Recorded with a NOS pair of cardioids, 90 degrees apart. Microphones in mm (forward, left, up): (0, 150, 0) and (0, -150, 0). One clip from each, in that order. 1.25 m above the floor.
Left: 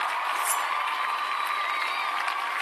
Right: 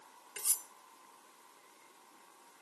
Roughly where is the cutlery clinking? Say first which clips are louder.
Left 16 dB; ahead.